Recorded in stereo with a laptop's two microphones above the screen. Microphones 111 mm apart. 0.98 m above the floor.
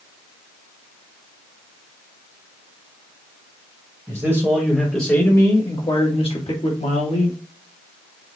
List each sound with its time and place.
4.1 s a man speaking: 25° right (ahead or behind), 1.0 m; by 7.4 s 70° left (ahead or behind), 1.8 m